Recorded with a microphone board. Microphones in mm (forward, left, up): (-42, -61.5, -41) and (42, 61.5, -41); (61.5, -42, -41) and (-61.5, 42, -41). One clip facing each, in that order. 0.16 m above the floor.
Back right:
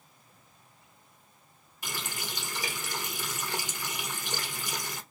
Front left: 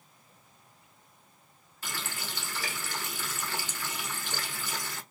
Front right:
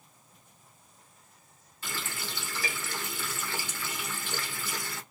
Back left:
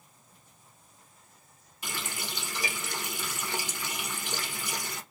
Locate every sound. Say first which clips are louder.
1.8 s a running tap: back right 1 dB, back left 1 dB; 170° right, 0.9 m